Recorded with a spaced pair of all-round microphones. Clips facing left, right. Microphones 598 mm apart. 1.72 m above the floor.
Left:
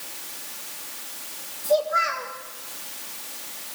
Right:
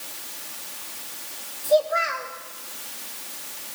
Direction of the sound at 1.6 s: 65° left (ahead or behind).